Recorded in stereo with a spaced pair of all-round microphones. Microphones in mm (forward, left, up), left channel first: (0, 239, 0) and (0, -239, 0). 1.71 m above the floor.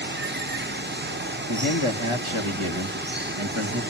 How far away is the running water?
About 0.9 m.